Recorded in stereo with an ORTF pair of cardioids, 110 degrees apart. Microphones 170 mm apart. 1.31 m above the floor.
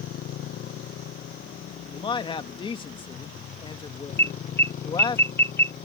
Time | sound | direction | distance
0.0 | a motorcycle | 65° left | ?
1.9 | a man speaking | 30° left | ?
4.2 | an alarm | 15° left | ?